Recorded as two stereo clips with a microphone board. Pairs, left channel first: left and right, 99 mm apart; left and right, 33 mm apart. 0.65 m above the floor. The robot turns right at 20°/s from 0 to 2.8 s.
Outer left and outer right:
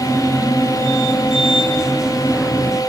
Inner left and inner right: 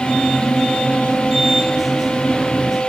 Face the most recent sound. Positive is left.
No sound to turn to.